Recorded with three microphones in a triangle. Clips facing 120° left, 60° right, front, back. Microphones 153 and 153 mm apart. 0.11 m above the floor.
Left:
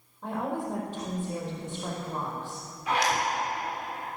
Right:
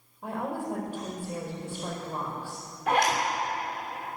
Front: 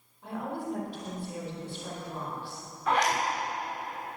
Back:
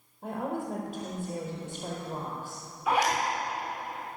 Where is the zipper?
95° right, 5.5 m.